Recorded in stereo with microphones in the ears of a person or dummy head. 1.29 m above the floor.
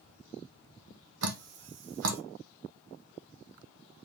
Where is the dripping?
70° right (ahead or behind), 0.9 m.